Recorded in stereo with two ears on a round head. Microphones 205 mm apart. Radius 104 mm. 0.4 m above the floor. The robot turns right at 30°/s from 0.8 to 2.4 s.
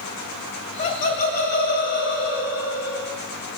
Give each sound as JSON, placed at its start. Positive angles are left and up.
{"t": 0.8, "sound": "laughter", "azimuth_deg": 35, "distance_m": 2.5}